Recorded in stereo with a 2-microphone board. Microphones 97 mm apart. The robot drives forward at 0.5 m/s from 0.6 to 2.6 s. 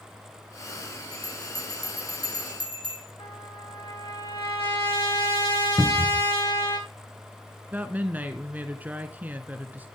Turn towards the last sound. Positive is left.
turn(degrees=-20)  # may be behind; listen again after turning